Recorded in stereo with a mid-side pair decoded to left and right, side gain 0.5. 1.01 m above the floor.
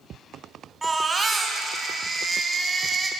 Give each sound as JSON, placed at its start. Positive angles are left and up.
{"t": 0.8, "sound": "a baby crying", "azimuth_deg": -20, "distance_m": 4.5}